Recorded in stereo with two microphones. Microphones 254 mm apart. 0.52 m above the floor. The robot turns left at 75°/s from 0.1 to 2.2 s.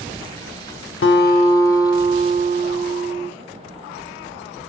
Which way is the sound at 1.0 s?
60° left.